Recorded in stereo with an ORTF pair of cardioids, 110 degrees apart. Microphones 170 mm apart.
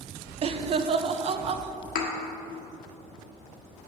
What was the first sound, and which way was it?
Laughter, 40° right.